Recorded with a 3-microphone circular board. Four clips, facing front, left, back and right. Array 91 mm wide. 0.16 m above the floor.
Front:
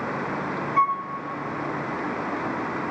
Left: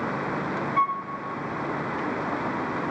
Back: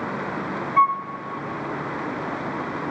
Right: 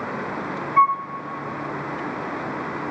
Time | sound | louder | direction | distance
0.8 | a flute | right 8 dB, back 4 dB | 115° right | 0.9 m